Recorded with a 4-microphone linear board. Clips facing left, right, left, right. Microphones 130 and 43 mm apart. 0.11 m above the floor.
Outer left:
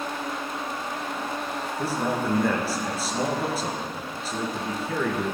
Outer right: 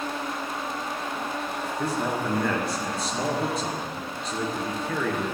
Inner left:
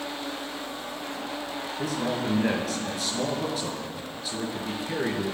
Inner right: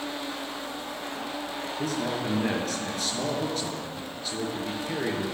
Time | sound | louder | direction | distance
1.8 | a man speaking | outer left 1 dB, inner left 1 dB | 5° left (ahead or behind) | 1.9 m